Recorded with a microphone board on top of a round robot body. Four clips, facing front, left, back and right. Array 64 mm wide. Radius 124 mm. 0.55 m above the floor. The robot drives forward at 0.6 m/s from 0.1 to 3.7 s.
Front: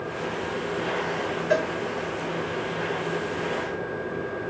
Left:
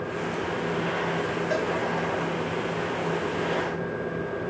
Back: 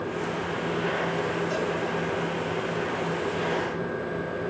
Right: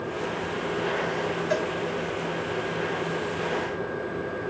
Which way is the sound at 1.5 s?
5° left.